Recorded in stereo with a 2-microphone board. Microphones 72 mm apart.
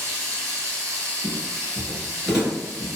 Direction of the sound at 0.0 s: 45° right (ahead or behind).